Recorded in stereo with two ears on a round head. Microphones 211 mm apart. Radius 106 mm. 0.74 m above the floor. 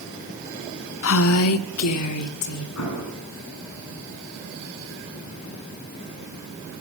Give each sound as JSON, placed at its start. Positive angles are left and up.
{"t": 1.0, "sound": "a woman speaking", "side_deg": 55, "distance_m": 0.8}
{"t": 2.8, "sound": "an explosion", "side_deg": 70, "distance_m": 7.0}